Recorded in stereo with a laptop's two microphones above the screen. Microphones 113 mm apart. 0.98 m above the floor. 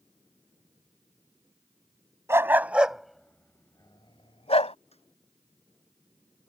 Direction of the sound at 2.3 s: 20° right (ahead or behind).